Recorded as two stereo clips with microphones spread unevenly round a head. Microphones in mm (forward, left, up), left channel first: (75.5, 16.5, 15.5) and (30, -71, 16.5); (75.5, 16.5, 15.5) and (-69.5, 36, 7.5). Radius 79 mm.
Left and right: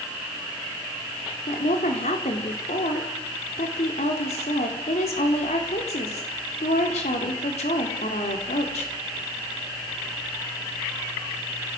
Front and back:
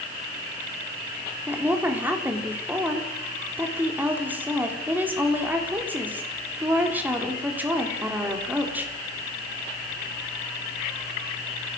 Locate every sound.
1.5 s a woman speaking: 95° left, 4 m